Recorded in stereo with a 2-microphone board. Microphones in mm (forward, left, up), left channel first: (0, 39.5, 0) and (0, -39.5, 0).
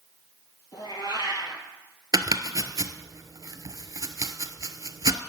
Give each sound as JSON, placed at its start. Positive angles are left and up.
{"t": 0.7, "sound": "a cat meowing", "side_deg": 65, "distance_m": 1.6}
{"t": 2.1, "sound": "chopping", "side_deg": -50, "distance_m": 0.6}